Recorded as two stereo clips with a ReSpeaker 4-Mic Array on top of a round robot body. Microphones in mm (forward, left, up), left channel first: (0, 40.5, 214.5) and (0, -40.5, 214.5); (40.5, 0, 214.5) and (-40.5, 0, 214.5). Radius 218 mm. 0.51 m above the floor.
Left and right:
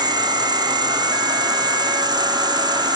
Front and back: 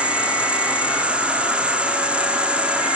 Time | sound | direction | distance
0.0 | an insect | 105° right | 3 m